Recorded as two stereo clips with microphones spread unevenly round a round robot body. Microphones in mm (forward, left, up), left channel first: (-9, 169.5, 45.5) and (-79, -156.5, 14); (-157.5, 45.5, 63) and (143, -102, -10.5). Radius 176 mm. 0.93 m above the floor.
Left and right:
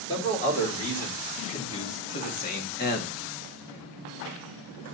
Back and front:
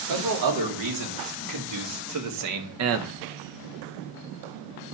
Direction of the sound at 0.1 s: 5° left.